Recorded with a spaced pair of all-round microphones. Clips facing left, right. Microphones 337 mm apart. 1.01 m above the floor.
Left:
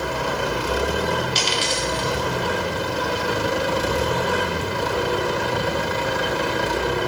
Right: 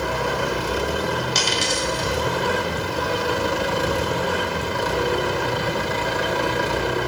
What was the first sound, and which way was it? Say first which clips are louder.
A dropped coin: right 1 dB; 60° right (ahead or behind).